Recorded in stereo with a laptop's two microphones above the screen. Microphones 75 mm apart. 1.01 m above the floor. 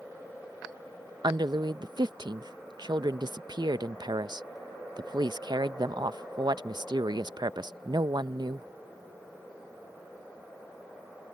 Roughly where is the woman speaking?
Right.